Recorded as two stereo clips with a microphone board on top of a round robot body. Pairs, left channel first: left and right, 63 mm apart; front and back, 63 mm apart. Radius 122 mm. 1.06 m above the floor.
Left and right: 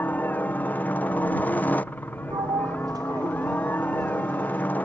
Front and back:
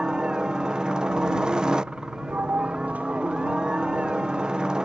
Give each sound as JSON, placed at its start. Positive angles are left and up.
{"t": 0.0, "sound": "a helicopter", "azimuth_deg": 115}
{"t": 2.3, "sound": "a sliding door", "azimuth_deg": -110}